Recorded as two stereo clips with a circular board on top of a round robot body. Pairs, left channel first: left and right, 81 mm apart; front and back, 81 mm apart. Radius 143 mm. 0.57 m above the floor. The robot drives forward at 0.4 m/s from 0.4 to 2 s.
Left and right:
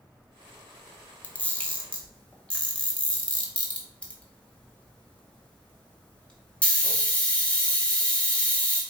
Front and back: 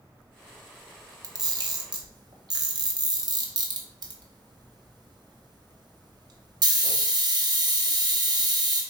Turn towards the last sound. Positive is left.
turn(degrees=165)